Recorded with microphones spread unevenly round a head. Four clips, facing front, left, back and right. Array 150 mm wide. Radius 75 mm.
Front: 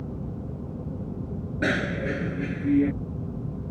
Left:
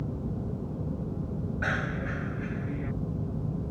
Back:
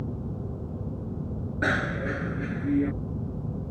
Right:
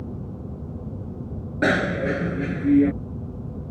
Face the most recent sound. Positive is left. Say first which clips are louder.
# right 13 dB, front 1 dB
turn(degrees=-75)